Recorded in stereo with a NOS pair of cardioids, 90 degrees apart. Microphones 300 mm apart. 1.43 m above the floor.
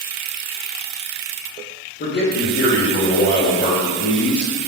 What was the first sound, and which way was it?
A man speaking, 35° left.